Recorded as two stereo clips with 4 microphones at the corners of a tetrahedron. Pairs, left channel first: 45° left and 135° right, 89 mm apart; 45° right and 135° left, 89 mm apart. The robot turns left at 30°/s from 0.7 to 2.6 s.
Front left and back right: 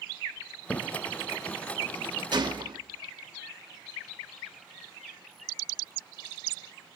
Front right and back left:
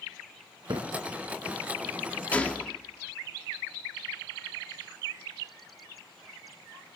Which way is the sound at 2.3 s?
115° right.